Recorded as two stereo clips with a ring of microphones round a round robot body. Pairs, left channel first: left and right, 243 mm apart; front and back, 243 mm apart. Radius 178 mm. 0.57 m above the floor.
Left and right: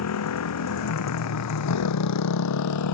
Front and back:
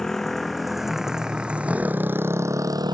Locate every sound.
0.0 s a motorcycle: 90° left; by 2.9 s 105° left